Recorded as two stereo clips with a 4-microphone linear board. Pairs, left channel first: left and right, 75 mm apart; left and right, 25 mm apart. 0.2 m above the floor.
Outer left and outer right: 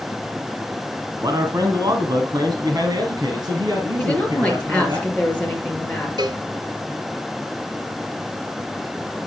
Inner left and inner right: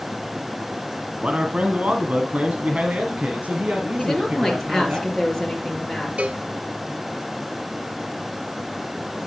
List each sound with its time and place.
1.2 s a man speaking: 55° right (ahead or behind), 1.9 m; by 5.0 s 60° right (ahead or behind), 3.5 m
4.0 s a woman speaking: 15° left (ahead or behind), 4 m
6.2 s a cowbell: 75° right (ahead or behind), 1.1 m